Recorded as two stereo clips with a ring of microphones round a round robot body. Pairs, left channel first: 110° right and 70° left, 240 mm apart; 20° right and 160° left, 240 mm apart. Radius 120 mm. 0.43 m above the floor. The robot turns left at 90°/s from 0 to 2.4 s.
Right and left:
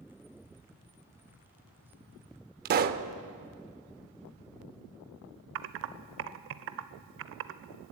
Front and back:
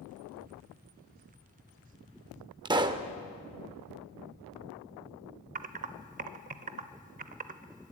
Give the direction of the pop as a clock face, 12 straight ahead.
9 o'clock.